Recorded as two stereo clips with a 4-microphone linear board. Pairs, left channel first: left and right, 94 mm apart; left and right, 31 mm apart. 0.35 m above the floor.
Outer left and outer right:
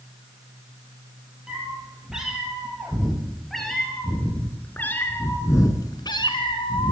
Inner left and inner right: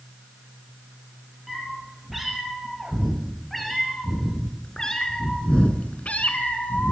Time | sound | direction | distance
1.5 | a cat meowing | 10° right (ahead or behind) | 4 m